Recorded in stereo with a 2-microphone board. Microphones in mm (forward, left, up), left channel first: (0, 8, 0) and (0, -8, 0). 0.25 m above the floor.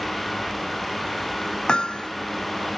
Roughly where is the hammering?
Left.